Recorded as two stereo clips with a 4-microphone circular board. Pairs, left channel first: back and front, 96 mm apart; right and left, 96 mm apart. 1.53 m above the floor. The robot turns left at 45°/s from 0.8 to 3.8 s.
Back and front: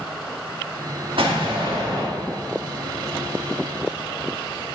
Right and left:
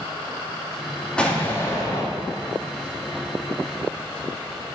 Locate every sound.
1.2 s an explosion: 10° right, 1.8 m; by 2.1 s 50° right, 1.8 m